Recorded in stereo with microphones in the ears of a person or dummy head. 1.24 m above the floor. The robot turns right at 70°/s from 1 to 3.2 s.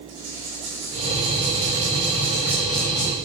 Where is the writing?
120° right, 4 m; by 3.1 s 30° left, 4 m.